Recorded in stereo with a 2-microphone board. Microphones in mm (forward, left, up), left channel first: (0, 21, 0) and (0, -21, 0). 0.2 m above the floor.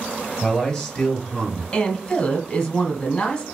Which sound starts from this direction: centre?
A man speaking, at 0.4 s.